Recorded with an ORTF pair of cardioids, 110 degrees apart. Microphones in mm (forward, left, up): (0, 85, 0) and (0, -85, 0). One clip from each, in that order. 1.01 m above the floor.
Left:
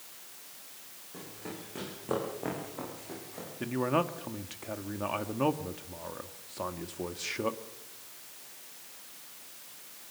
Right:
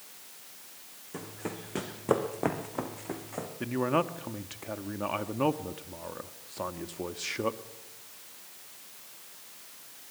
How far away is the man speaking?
About 1.4 m.